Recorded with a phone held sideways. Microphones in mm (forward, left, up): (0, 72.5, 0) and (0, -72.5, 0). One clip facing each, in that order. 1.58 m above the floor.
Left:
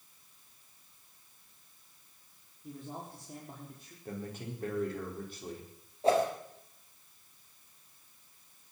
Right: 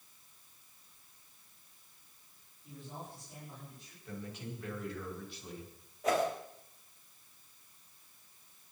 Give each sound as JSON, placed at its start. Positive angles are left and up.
{"t": 2.6, "sound": "a man speaking", "side_deg": 55, "distance_m": 5.5}
{"t": 4.0, "sound": "a man speaking", "side_deg": 45, "distance_m": 5.0}
{"t": 6.0, "sound": "a whoosh", "side_deg": 30, "distance_m": 4.0}